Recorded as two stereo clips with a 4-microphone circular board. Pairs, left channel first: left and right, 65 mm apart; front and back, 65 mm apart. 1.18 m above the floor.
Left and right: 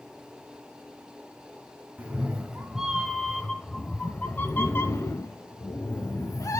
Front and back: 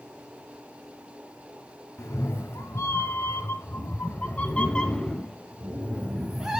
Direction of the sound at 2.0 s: 25° right.